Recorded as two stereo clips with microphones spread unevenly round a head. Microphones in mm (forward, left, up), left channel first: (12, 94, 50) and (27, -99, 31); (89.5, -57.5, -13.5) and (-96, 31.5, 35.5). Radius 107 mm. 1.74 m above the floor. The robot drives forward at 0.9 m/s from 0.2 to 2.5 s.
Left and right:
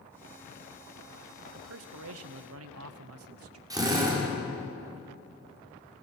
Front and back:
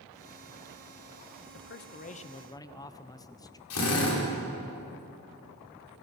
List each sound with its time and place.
1.5 s a man speaking: 60° right, 1.3 m; by 3.6 s 100° right, 1.1 m
3.7 s a drill: 10° right, 5 m